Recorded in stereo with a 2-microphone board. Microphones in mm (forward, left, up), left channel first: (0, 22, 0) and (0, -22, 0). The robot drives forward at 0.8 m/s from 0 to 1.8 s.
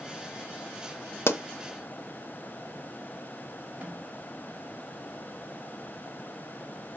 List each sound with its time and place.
1.3 s a pop: 65° left (ahead or behind), 0.5 m; by 1.4 s 55° left (ahead or behind), 0.6 m
3.8 s a snare drum: 45° right (ahead or behind), 2.5 m